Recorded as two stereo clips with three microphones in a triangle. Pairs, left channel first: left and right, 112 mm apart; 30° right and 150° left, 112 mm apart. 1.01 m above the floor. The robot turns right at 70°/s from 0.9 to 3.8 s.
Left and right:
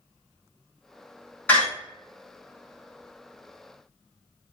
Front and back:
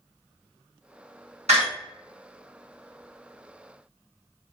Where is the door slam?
165° left, 1.4 m; by 1.6 s 175° left, 1.4 m.